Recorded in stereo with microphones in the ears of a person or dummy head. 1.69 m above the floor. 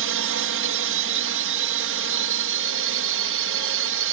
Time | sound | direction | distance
0.0 | a drone | 65° right (ahead or behind) | ?